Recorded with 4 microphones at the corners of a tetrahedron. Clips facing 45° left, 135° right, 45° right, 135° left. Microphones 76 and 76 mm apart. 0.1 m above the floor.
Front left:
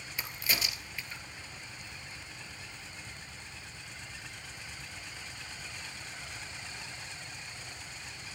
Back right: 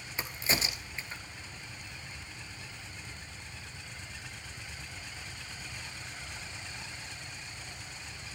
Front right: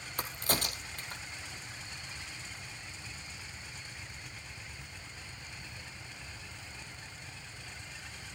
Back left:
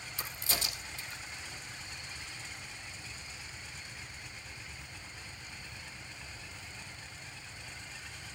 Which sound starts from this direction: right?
A crack, at 0.2 s.